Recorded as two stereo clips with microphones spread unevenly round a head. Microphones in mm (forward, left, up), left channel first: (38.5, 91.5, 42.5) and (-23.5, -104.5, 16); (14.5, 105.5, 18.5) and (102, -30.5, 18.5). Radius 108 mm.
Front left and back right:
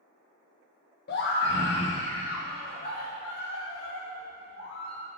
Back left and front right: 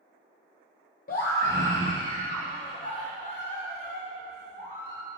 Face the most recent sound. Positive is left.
turn(degrees=120)